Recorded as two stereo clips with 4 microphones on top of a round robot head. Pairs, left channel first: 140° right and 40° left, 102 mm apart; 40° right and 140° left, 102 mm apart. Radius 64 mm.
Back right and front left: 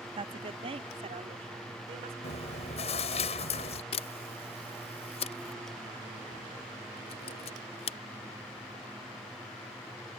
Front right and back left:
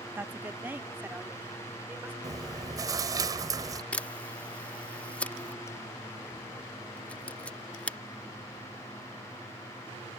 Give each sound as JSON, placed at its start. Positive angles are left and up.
{"t": 0.2, "sound": "a woman speaking", "azimuth_deg": 70}
{"t": 2.2, "sound": "chewing", "azimuth_deg": -165}
{"t": 3.9, "sound": "a camera shutter", "azimuth_deg": -120}